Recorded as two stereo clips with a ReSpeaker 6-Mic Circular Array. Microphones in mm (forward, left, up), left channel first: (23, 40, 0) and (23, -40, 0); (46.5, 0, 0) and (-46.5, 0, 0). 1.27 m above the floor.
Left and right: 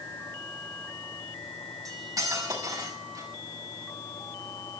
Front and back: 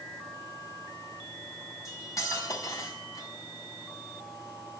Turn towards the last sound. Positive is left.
turn(degrees=-55)